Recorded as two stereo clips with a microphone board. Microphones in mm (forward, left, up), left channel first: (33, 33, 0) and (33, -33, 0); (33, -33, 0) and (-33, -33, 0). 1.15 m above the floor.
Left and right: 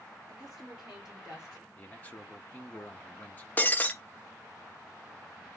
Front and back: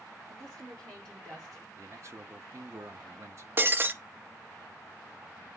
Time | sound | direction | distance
0.3 | a woman speaking | 165° right | 3.5 m
1.8 | a man speaking | 150° left | 1.0 m
3.6 | breaking glass | 140° left | 0.5 m